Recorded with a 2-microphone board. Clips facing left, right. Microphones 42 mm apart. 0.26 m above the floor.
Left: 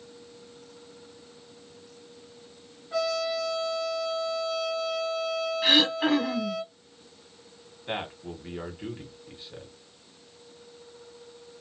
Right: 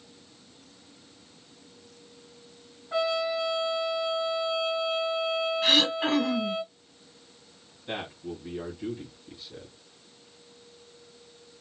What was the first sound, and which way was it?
A trumpet, 20° right (ahead or behind).